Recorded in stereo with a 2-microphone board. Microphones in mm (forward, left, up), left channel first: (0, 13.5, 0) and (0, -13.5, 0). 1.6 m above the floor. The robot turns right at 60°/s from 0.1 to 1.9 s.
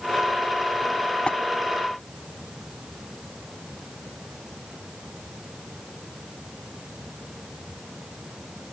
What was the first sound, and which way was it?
Tapping, 40° left (ahead or behind).